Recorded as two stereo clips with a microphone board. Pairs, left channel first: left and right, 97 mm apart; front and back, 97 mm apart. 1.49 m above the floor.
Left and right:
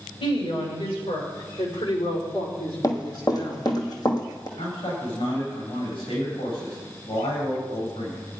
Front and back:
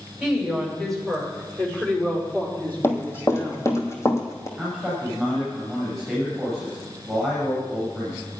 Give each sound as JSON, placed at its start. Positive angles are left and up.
{"t": 0.2, "sound": "a woman speaking", "azimuth_deg": 90, "distance_m": 6.0}
{"t": 2.8, "sound": "running footsteps", "azimuth_deg": 55, "distance_m": 2.0}
{"t": 4.6, "sound": "a man speaking", "azimuth_deg": 90, "distance_m": 8.5}